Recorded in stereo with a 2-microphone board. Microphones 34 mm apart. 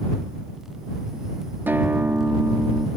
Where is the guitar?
80° right.